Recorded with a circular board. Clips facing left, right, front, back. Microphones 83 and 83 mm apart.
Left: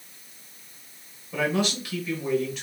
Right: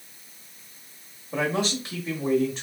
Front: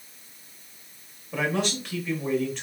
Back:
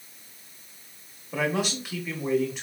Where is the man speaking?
105° right, 1.3 m.